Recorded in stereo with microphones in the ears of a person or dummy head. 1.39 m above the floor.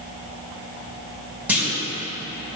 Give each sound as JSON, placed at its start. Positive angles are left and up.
{"t": 1.5, "sound": "a clunk", "side_deg": -15, "distance_m": 4.5}